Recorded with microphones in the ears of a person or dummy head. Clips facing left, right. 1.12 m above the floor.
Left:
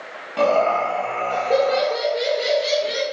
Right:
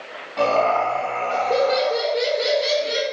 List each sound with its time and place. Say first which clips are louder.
0.4 s laughter: left 1 dB; 45° left (ahead or behind), 1.3 m; by 3.0 s 15° right (ahead or behind), 1.4 m